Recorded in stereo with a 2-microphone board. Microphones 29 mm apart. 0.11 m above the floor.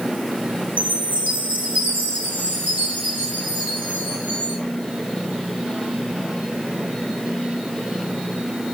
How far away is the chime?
About 4.5 m.